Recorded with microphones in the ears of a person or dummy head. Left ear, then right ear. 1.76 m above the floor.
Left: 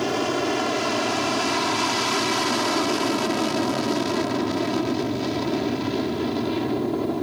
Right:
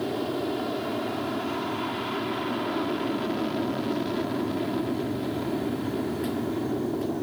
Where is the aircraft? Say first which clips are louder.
Left 6 dB; 65° left (ahead or behind).